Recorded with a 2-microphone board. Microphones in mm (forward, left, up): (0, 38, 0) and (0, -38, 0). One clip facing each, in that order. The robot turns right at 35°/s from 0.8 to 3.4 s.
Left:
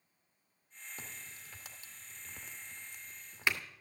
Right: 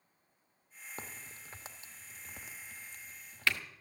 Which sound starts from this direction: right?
A crack, at 1.0 s.